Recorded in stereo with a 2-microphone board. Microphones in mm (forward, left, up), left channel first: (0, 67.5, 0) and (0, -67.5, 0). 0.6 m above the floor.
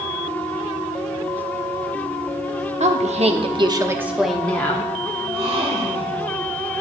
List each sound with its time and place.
2.8 s a woman speaking: 60° right (ahead or behind), 1.2 m; by 4.9 s 20° left (ahead or behind), 1.1 m
5.2 s a gasp: 40° right (ahead or behind), 1.4 m